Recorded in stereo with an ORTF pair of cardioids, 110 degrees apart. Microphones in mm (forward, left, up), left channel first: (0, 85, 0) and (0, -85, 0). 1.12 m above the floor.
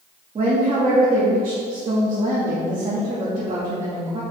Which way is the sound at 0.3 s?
35° right.